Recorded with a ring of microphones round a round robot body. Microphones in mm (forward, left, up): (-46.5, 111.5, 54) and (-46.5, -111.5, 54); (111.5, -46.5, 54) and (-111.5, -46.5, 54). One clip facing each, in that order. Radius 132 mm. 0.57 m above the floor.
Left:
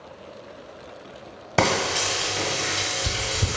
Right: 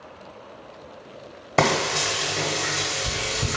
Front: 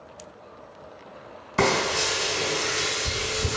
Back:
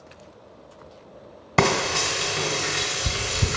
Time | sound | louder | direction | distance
1.6 | frying | right 1 dB, back 1 dB | 170° left | 1.2 m